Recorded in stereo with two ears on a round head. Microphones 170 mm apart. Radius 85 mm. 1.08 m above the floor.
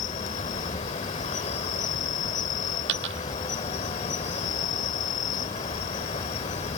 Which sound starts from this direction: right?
A dropped coin, at 2.9 s.